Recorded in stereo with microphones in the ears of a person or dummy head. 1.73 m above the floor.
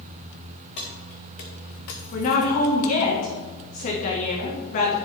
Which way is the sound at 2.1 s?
45° left (ahead or behind).